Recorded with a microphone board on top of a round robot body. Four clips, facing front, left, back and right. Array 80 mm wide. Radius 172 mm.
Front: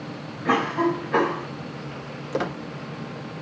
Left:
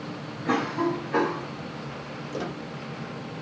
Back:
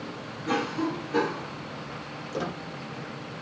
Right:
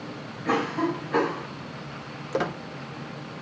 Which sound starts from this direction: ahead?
A cough, at 0.5 s.